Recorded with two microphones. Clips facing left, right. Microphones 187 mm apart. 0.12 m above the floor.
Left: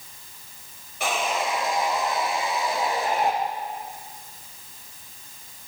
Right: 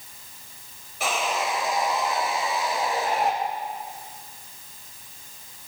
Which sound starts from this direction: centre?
Sawing, at 1.0 s.